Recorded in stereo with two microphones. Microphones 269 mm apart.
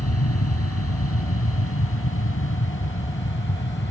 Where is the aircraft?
60° left (ahead or behind); by 3.9 s 45° left (ahead or behind).